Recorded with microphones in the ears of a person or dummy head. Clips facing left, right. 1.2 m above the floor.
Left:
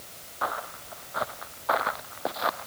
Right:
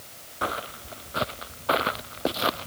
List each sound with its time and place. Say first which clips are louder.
0.4 s footsteps: right 2 dB; 35° right (ahead or behind)